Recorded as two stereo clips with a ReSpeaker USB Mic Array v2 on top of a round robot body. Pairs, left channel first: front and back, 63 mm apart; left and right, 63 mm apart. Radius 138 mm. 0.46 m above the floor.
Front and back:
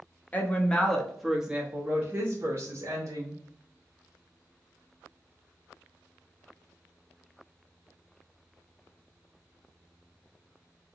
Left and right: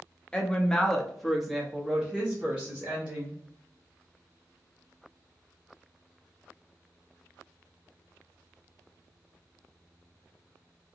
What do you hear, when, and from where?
0.3 s a woman speaking: 30° left, 1.0 m; by 3.4 s 155° right, 1.5 m